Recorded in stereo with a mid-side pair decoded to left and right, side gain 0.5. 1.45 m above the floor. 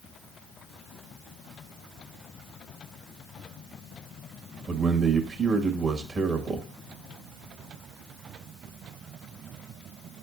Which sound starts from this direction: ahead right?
A man speaking, at 4.7 s.